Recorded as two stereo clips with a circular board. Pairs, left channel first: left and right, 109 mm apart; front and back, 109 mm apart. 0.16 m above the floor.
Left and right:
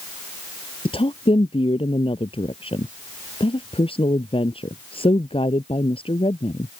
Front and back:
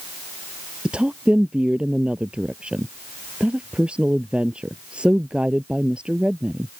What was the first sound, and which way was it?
A woman speaking, 100° left.